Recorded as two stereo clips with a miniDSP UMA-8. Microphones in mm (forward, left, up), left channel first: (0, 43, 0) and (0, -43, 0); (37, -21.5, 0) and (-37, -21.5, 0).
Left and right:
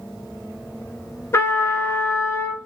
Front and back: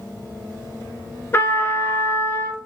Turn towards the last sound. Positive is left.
turn(degrees=45)